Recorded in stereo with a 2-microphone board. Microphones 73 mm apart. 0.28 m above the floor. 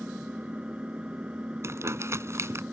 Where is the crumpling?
40° right (ahead or behind).